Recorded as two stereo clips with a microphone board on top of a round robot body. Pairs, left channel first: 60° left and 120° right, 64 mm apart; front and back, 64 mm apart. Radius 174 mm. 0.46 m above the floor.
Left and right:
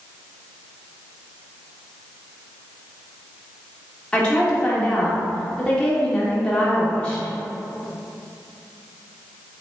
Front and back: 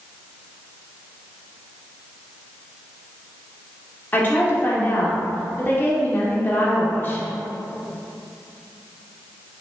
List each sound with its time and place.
4.1 s a woman speaking: straight ahead, 1.4 m